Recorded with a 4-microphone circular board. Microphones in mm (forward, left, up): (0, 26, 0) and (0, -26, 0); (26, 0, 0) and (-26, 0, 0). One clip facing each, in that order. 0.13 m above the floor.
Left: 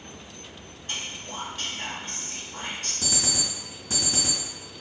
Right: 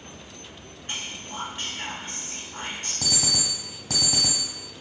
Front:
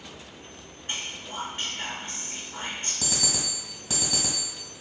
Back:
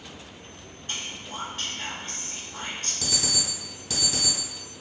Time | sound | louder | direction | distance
0.9 | whispering | even, front 1 dB | 50° right | 1.3 m
3.0 | an alarm clock | right 2 dB, back 1 dB | 70° right | 1.6 m